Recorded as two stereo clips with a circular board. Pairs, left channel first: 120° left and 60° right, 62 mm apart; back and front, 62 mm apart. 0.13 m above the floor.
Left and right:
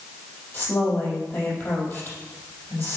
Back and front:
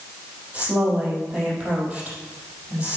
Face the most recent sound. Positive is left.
turn(degrees=70)